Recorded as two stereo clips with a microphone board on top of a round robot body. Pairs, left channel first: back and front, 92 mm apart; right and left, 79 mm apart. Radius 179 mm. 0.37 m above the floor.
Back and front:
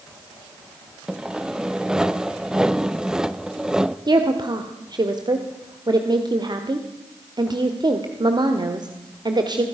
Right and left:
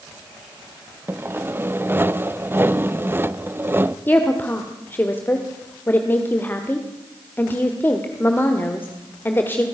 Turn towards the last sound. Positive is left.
turn(degrees=-30)